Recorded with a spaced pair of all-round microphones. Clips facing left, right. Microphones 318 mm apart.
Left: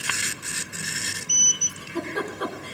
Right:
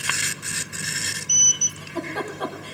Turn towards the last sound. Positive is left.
turn(degrees=30)  # may be behind; listen again after turning